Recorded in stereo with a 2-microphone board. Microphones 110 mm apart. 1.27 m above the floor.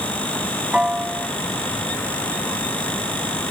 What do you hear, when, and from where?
0.7 s a piano: 10° right (ahead or behind)